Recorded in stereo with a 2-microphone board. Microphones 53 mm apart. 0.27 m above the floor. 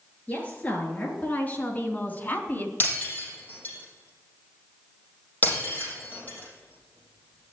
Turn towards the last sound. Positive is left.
turn(degrees=35)  # may be behind; listen again after turning